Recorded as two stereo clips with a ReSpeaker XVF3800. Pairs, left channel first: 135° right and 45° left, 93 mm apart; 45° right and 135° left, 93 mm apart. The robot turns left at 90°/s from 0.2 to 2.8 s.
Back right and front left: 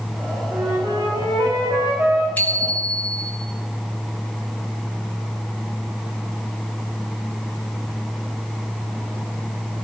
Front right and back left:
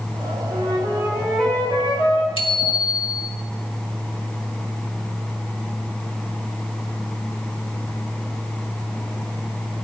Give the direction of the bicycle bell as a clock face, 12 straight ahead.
2 o'clock.